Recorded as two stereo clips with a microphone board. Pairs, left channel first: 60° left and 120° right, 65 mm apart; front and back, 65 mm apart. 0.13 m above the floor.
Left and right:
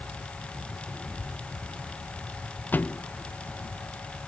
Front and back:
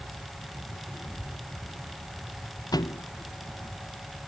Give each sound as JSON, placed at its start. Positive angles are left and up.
{"t": 1.0, "sound": "a child speaking", "azimuth_deg": -10}
{"t": 2.7, "sound": "a thud", "azimuth_deg": -5}